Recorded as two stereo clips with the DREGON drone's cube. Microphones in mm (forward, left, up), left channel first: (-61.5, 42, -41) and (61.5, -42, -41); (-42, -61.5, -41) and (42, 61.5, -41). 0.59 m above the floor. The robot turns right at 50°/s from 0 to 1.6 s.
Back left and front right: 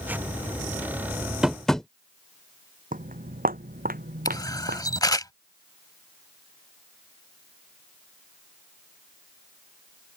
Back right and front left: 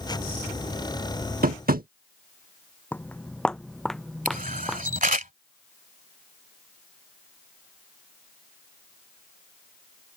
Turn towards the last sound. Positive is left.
turn(degrees=80)